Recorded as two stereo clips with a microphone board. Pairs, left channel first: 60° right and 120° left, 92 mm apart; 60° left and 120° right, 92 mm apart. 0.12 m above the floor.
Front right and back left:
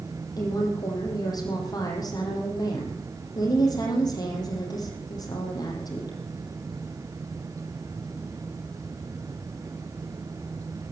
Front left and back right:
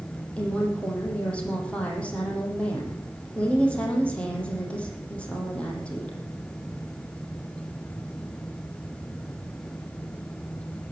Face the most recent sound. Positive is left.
turn(degrees=-15)